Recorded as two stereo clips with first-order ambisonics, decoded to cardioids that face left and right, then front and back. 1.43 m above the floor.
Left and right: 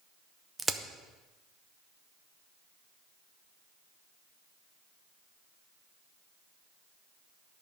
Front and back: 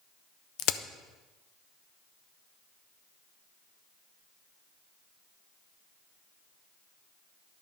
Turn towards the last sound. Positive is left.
turn(degrees=-10)